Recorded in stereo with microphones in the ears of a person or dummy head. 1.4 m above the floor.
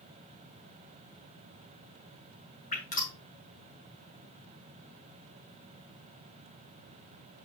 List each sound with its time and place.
2.7 s dripping: 45° left (ahead or behind), 3.5 m